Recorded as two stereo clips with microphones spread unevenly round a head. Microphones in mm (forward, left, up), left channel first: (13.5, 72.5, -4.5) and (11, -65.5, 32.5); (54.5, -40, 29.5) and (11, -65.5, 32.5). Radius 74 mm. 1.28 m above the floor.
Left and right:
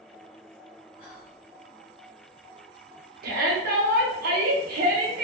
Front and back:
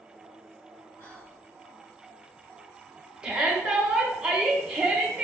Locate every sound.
1.0 s whispering: 50° left, 1.4 m
3.2 s a shout: 75° right, 0.7 m